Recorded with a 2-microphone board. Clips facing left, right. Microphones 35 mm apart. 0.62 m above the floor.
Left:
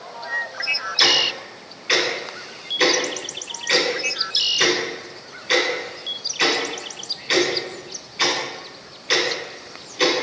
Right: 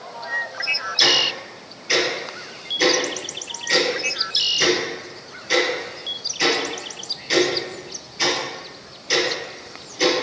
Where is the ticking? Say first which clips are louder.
Even; 55° left (ahead or behind), 1.9 m.